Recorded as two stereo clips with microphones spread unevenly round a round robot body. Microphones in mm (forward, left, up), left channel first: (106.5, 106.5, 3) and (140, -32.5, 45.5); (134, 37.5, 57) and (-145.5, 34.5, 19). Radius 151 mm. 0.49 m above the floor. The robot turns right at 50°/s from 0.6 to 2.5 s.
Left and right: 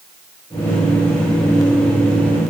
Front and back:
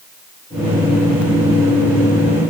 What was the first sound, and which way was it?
Only background noise.